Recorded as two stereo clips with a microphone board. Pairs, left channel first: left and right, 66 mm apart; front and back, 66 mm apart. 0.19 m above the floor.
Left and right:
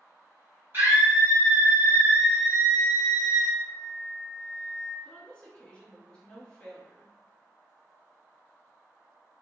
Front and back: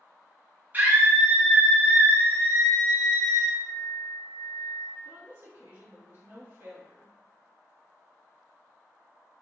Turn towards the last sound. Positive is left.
turn(degrees=160)